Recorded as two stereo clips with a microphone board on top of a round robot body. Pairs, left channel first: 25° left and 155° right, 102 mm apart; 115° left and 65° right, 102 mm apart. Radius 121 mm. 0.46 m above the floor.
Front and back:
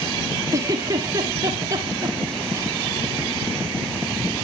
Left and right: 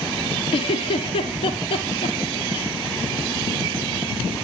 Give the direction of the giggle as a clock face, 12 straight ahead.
7 o'clock.